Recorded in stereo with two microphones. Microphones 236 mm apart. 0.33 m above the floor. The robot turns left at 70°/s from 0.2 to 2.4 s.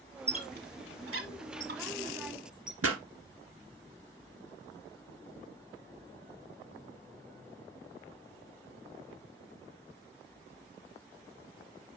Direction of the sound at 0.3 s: 25° right (ahead or behind).